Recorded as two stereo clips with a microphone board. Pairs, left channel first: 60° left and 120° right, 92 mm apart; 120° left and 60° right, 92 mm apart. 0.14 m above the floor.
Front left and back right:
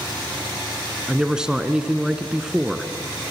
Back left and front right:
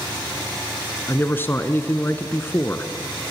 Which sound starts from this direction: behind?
A man speaking, at 1.1 s.